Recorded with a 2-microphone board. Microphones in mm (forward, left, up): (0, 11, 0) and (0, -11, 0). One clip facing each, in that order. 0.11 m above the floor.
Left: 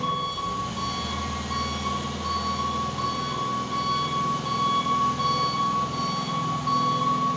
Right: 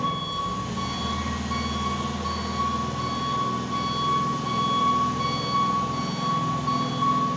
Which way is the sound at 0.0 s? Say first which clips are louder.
Even; 30° left (ahead or behind).